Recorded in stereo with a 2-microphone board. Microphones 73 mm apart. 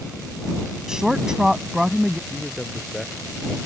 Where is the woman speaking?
10° right (ahead or behind).